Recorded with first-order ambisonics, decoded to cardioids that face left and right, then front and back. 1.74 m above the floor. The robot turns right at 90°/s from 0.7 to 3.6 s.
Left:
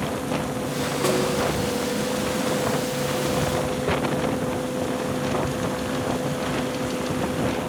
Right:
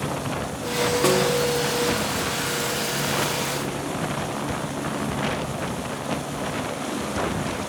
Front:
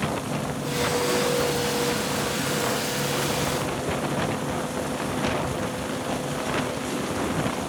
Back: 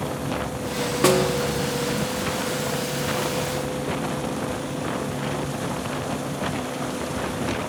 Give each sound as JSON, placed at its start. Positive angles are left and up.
{"t": 1.0, "sound": "a snare drum", "azimuth_deg": -170, "distance_m": 1.9}